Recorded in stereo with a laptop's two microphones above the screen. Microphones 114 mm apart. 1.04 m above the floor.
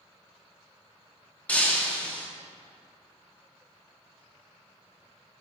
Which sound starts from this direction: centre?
Breaking glass, at 1.5 s.